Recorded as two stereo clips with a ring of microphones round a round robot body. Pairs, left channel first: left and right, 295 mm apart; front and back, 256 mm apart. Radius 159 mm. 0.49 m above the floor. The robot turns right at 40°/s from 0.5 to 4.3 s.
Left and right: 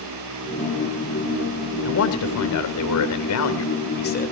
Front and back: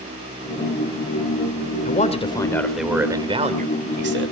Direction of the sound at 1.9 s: 55° left.